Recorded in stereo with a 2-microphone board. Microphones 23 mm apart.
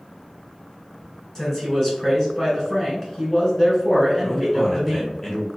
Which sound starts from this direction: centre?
A man speaking, at 4.2 s.